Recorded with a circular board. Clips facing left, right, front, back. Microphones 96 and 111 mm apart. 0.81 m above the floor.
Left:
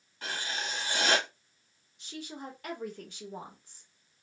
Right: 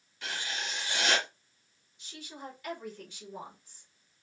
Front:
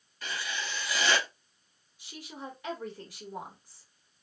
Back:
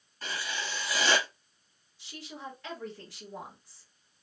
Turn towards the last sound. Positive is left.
turn(degrees=75)